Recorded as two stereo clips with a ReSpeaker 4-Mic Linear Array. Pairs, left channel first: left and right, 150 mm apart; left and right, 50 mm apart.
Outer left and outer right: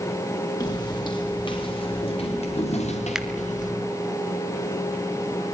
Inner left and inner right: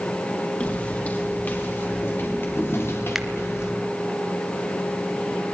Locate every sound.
0.6 s footsteps: 25° left (ahead or behind), 7.5 m; by 3.7 s 60° left (ahead or behind), 6.5 m
3.1 s a finger snap: 5° right (ahead or behind), 1.5 m